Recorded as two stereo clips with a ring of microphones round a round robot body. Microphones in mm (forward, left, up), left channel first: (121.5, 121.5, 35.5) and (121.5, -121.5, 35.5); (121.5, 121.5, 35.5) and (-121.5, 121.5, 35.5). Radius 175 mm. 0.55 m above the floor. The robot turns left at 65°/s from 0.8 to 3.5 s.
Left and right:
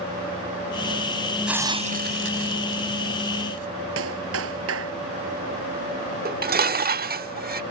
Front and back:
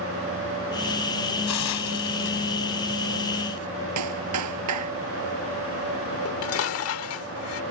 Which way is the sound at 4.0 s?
145° right.